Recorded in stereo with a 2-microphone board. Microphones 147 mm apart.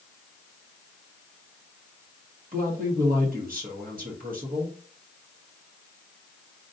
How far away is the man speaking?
About 1.3 m.